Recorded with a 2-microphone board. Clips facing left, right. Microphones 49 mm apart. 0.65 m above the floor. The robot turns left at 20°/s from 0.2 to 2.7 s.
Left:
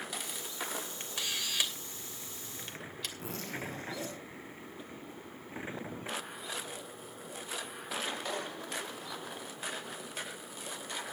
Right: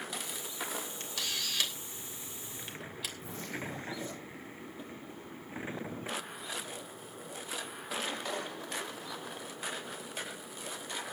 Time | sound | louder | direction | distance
1.0 | a camera shutter | left 1 dB | 30° left (ahead or behind) | 3 m
3.2 | a zipper | left 2 dB | 80° left | 7.5 m